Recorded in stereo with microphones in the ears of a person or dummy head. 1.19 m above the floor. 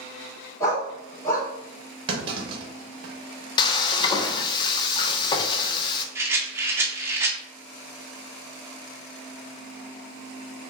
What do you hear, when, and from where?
0.6 s a dog barking: 20° left (ahead or behind), 1.3 m
2.1 s a clunk: 25° right (ahead or behind), 1.0 m
3.6 s frying: 30° left (ahead or behind), 0.5 m
6.2 s a rattle: 15° right (ahead or behind), 0.7 m